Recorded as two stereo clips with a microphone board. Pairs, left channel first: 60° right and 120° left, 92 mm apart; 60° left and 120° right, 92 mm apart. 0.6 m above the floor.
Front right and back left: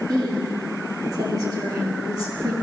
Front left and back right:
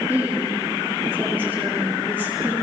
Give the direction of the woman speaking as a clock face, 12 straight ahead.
6 o'clock.